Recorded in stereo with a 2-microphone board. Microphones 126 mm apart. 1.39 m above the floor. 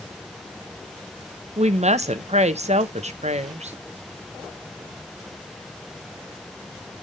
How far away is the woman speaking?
About 0.9 m.